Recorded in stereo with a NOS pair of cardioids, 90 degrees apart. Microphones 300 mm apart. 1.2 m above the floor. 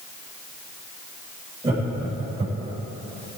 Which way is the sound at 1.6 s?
20° right.